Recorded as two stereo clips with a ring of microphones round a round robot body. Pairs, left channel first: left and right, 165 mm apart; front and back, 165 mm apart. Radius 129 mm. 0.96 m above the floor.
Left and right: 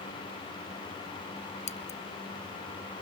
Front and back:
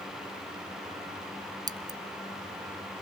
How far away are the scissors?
About 1.1 m.